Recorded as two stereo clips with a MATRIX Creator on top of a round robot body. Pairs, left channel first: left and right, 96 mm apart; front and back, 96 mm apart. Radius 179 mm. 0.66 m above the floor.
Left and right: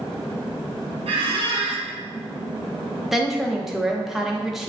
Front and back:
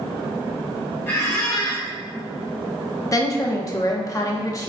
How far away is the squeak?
About 0.8 m.